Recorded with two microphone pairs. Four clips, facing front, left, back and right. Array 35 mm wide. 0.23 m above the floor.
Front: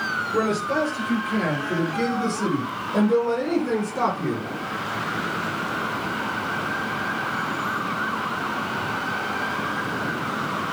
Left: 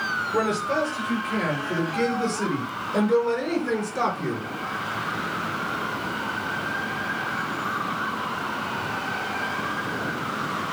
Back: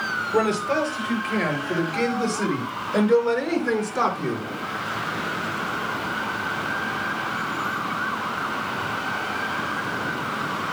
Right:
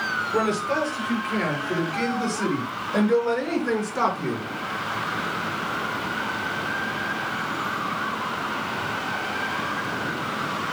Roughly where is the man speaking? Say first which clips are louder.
Right 1 dB, back 2 dB; behind right.